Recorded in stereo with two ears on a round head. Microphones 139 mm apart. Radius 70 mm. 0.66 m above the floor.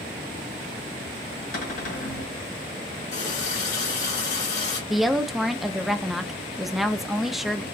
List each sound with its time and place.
1.5 s a cupboard door: 60° left (ahead or behind), 1.8 m
3.1 s a running tap: 75° left (ahead or behind), 1.8 m
4.9 s a woman speaking: centre (ahead or behind), 0.5 m